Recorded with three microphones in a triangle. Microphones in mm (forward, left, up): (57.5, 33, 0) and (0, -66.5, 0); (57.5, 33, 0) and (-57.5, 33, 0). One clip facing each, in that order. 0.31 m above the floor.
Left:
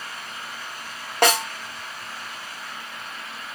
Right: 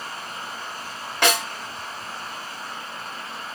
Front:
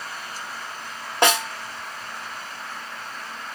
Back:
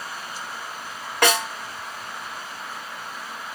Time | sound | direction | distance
1.2 | a snare drum | 50° left | 1.3 m